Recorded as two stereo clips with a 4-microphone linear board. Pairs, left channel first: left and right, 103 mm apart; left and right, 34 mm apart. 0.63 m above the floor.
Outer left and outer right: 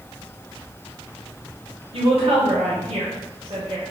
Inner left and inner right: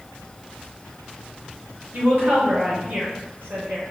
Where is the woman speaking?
70° right (ahead or behind), 2 m.